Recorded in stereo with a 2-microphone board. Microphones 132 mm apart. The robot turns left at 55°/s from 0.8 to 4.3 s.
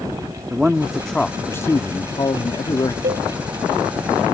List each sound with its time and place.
0.5 s a man speaking: 170° right; by 2.9 s 70° left
3.0 s a cowbell: 80° right; by 3.3 s 70° right (ahead or behind)